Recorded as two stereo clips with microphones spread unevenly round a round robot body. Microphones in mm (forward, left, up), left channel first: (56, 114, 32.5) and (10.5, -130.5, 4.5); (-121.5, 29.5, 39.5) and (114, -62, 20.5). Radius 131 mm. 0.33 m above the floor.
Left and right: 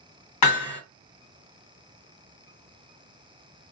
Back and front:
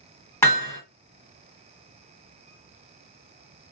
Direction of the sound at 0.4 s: 80° left.